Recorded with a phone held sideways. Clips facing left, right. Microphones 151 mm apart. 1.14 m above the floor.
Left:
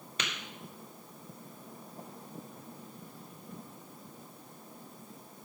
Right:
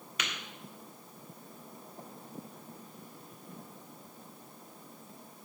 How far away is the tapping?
About 2.5 m.